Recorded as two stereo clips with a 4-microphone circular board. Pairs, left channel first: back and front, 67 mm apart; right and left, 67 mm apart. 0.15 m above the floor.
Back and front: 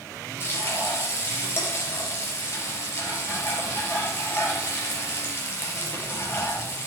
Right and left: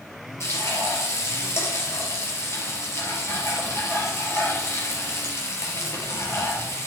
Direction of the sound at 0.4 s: 130° right.